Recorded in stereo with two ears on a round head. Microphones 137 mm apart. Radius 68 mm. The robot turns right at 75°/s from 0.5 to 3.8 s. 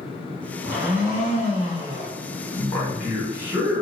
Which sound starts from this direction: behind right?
A blender, at 0.6 s.